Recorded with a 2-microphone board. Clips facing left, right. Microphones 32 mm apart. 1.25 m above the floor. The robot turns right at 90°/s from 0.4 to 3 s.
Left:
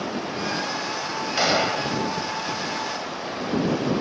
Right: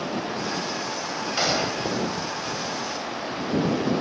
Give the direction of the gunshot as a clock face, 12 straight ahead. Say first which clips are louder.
Left 4 dB; 12 o'clock.